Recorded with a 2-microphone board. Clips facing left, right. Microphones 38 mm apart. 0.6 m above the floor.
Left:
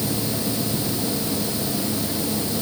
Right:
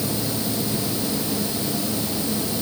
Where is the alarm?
No alarm in this recording.